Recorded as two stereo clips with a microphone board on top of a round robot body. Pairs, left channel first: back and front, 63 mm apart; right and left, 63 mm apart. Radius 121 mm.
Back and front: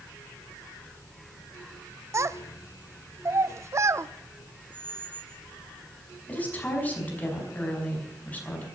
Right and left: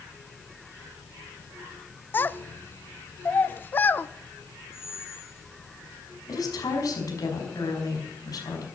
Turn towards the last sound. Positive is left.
turn(degrees=-115)